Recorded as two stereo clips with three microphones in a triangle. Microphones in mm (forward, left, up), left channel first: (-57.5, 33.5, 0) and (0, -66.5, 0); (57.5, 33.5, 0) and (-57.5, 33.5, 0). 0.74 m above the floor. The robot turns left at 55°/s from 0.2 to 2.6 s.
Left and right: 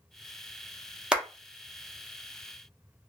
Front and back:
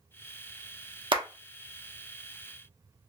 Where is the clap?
140° right, 0.9 m; by 1.2 s 150° right, 0.9 m.